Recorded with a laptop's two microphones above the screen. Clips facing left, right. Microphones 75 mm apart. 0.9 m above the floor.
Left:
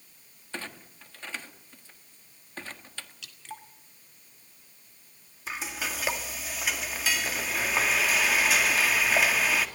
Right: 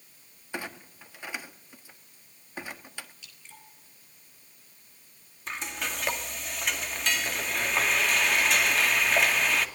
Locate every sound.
0.5 s a clunk: 15° right (ahead or behind), 1.4 m
3.2 s dripping: 80° left, 2 m
5.5 s frying: 5° left (ahead or behind), 2 m